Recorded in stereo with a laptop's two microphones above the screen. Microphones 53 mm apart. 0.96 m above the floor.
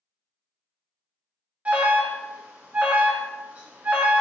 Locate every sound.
1.6 s an alarm: 25° right (ahead or behind), 0.6 m